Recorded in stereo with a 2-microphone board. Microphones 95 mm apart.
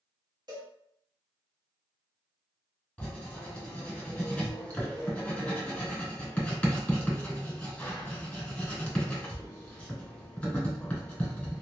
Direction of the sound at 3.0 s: 15° left (ahead or behind).